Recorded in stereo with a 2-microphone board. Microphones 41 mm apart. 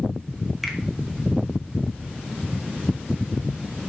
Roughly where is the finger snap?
Centre.